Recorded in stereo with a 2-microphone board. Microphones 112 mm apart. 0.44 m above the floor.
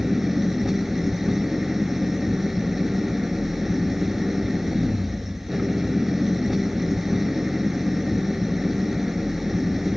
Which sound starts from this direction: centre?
An engine running, at 0.0 s.